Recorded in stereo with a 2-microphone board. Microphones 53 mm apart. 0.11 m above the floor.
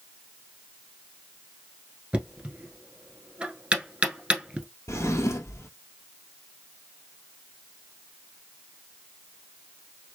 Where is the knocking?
20° right (ahead or behind), 1.0 m.